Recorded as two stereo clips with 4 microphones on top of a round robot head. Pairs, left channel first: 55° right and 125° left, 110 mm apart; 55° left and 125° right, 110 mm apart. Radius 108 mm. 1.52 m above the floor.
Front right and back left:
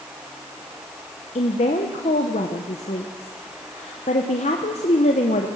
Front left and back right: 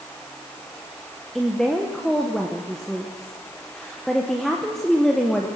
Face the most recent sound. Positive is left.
turn(degrees=-30)